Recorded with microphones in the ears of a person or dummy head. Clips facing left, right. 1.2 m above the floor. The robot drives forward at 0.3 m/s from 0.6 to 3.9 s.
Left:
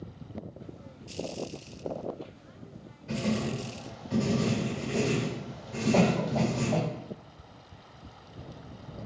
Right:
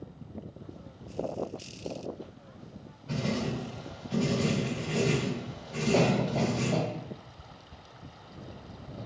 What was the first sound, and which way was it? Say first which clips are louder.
Writing: left 1 dB; 35° left (ahead or behind).